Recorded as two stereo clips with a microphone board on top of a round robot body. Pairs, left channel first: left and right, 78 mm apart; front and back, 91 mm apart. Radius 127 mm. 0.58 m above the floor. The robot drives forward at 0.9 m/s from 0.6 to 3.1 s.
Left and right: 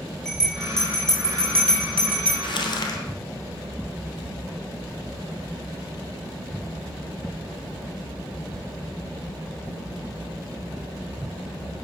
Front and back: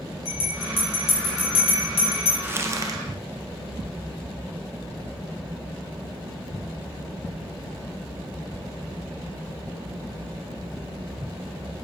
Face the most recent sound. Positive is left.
turn(degrees=135)